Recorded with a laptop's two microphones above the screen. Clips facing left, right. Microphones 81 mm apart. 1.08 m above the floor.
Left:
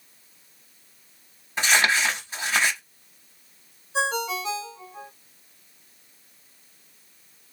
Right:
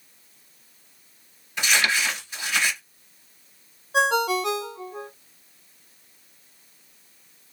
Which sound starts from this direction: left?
Crumpling, at 1.6 s.